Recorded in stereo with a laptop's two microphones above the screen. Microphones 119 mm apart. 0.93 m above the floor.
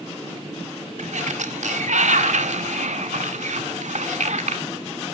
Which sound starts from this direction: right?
A sliding door, at 1.0 s.